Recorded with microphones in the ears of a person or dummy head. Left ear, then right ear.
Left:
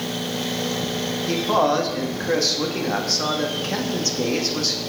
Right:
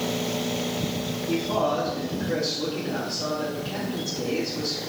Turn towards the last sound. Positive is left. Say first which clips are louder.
# left 5 dB
turn(degrees=60)  # may be behind; listen again after turning